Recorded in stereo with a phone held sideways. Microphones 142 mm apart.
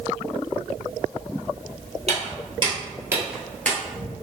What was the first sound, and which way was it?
Footsteps, 50° right (ahead or behind).